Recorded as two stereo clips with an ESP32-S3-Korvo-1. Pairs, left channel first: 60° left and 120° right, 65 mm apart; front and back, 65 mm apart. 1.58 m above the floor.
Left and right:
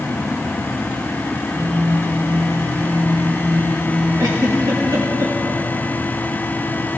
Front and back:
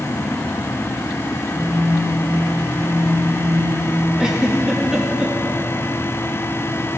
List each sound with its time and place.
1.6 s a phone buzzing: 50° right, 2.5 m
4.2 s a giggle: 100° right, 1.8 m